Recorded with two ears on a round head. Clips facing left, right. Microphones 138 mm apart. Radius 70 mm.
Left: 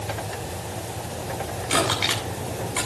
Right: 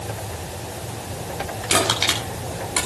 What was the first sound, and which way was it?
Crushing, 50° right (ahead or behind).